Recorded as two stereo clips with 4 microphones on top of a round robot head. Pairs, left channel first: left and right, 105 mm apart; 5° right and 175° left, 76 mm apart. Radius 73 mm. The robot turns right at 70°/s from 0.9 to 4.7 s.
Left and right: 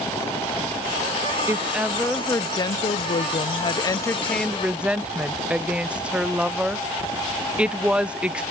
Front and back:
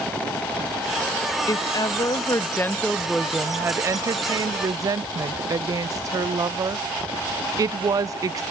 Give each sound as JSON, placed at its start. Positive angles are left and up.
{"t": 1.5, "sound": "a woman speaking", "azimuth_deg": -35, "distance_m": 0.5}